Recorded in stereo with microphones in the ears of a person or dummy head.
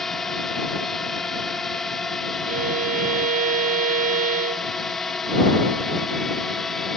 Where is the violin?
45° right (ahead or behind).